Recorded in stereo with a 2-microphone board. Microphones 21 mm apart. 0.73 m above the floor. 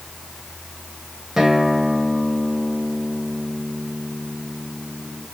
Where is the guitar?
20° right (ahead or behind), 1.6 m.